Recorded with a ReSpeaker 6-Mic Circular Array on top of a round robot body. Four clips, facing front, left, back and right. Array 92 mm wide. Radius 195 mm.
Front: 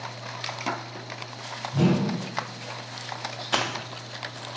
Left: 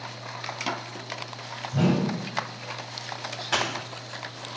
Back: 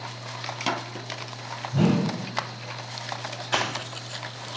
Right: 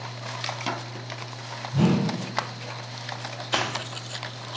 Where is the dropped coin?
105° left, 1.5 m.